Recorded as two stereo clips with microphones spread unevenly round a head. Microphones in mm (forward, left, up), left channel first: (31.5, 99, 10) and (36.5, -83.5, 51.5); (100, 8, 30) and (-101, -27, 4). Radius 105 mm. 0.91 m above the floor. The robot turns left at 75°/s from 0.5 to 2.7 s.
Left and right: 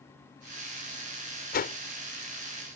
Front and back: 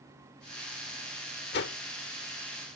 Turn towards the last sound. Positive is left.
turn(degrees=-35)